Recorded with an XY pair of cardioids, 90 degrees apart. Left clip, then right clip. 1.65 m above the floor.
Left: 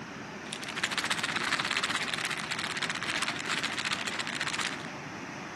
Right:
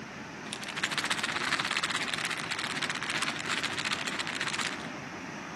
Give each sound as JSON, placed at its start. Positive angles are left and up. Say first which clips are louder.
{"t": 0.5, "sound": "a rattle", "louder": "even", "azimuth_deg": 5, "distance_m": 0.7}